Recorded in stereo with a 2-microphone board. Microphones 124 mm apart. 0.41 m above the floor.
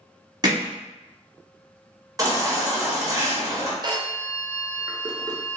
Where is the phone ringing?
35° right (ahead or behind), 0.5 m.